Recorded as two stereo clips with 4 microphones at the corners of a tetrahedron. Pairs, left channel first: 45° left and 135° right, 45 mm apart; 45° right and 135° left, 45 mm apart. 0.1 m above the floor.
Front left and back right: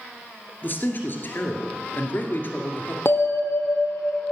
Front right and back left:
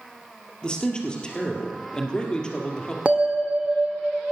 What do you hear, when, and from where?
0.6 s a man speaking: 20° left, 2 m
3.0 s a bell: 75° left, 1.3 m